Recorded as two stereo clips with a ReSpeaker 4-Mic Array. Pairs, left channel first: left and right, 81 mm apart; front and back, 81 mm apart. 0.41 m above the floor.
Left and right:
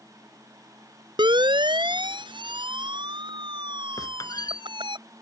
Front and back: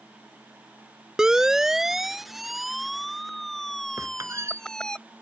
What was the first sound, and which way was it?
A siren, 100° right.